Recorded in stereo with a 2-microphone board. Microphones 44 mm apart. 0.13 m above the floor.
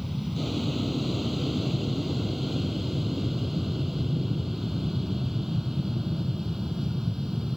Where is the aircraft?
Centre (ahead or behind); by 7.6 s 10° right (ahead or behind).